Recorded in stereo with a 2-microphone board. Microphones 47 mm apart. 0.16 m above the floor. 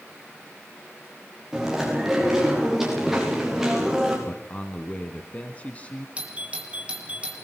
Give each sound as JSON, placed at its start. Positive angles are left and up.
{"t": 1.5, "sound": "chewing", "side_deg": -10, "distance_m": 9.5}
{"t": 4.3, "sound": "a man speaking", "side_deg": 30, "distance_m": 1.9}
{"t": 6.2, "sound": "a doorbell", "side_deg": -25, "distance_m": 4.5}